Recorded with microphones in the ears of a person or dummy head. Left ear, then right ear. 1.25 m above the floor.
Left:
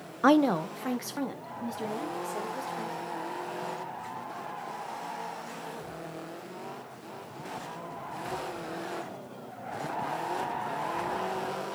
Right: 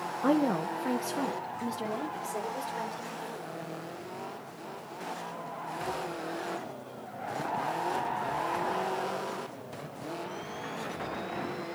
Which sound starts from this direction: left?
A woman speaking, at 0.2 s.